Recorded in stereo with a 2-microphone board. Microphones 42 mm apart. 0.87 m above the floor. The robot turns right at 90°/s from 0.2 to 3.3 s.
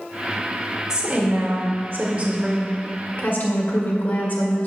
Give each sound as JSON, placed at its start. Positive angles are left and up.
{"t": 0.9, "sound": "a woman speaking", "azimuth_deg": -165, "distance_m": 1.7}